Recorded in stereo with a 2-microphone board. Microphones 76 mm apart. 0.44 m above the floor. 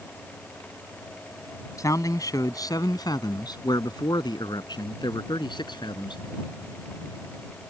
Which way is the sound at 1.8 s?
45° left (ahead or behind).